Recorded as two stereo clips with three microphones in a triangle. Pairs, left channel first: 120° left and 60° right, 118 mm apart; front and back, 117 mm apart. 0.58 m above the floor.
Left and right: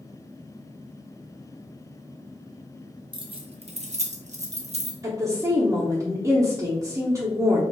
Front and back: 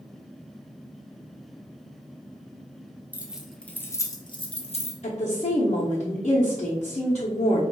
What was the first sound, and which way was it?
Keys jangling, 105° right.